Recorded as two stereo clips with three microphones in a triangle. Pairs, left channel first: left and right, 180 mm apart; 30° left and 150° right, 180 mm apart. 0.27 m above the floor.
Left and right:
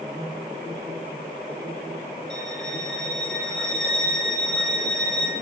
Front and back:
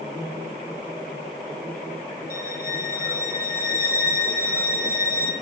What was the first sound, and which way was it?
A violin, 5° left.